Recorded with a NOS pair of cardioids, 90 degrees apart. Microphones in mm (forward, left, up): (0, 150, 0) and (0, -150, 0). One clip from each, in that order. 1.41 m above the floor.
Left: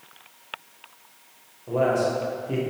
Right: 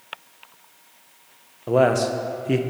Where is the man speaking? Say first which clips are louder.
Right 4 dB; 60° right, 0.8 m.